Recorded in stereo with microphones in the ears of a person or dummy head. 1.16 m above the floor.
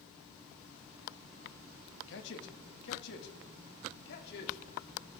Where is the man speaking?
75° left (ahead or behind), 1.8 m; by 4.6 s 70° left (ahead or behind), 3 m.